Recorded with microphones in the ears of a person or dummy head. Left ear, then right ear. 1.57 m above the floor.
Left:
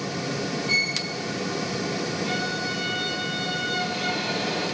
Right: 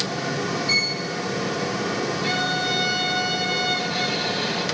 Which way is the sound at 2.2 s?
40° right (ahead or behind).